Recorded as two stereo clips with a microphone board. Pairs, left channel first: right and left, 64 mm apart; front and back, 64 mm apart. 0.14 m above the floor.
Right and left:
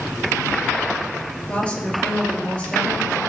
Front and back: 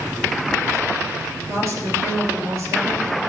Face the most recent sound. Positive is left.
turn(degrees=-160)